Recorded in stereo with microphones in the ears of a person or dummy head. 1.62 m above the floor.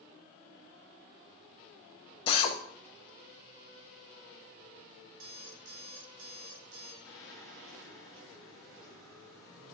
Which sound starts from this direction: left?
A drill, at 2.3 s.